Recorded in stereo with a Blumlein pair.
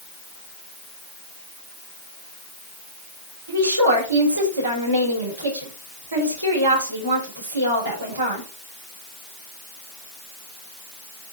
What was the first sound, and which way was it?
A woman speaking, 70° right.